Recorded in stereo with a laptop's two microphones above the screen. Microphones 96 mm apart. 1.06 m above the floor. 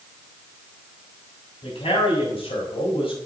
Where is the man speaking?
90° left, 6 m; by 3.1 s 70° left (ahead or behind), 4.5 m.